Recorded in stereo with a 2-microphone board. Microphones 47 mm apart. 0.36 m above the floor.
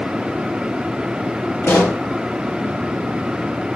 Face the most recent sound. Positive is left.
turn(degrees=60)  # may be behind; listen again after turning